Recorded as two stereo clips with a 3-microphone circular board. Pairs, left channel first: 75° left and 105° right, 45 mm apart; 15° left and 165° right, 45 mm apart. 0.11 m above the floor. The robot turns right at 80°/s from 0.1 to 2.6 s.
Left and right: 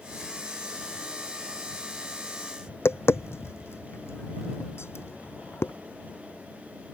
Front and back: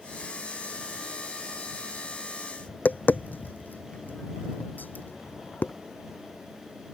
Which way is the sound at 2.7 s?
65° left.